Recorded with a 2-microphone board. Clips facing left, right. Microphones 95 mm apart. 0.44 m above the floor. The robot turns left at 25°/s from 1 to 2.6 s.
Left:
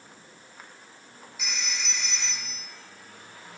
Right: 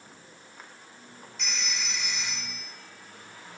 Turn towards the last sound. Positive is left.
turn(degrees=-20)